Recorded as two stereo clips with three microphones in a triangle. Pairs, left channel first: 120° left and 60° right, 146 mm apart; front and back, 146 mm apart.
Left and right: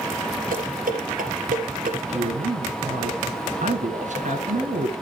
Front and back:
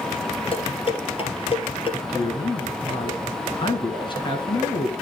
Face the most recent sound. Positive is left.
turn(degrees=-50)